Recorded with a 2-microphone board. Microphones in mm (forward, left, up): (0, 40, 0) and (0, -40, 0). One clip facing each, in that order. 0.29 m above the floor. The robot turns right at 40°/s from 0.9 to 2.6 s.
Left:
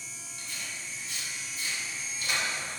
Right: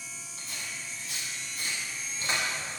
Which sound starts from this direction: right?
Tearing paper, at 0.4 s.